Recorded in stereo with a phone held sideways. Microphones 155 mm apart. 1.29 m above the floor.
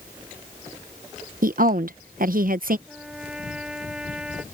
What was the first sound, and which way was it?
A woman speaking, 70° right (ahead or behind).